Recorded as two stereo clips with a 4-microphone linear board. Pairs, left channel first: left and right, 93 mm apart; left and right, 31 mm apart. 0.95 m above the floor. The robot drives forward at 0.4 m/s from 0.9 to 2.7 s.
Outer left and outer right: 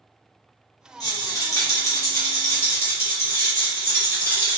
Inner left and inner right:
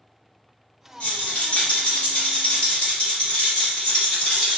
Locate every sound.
1.0 s a rattle: 45° left (ahead or behind), 0.8 m; by 4.6 s 25° left (ahead or behind), 1.2 m